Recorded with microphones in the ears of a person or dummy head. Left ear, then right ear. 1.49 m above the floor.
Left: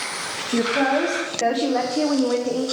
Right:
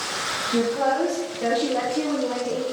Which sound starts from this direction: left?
A woman speaking, at 0.5 s.